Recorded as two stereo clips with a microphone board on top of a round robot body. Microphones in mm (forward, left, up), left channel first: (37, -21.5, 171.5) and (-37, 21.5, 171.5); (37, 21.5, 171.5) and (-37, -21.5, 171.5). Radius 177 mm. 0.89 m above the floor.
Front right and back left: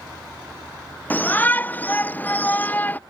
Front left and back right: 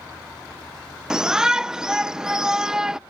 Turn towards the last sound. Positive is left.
turn(degrees=-75)